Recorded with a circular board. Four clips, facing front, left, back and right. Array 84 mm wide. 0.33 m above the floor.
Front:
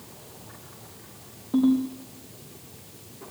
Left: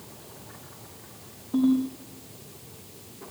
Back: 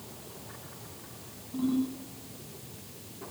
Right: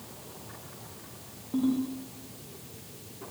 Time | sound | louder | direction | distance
1.5 | a ringtone | left 5 dB, front 8 dB | straight ahead | 5.5 m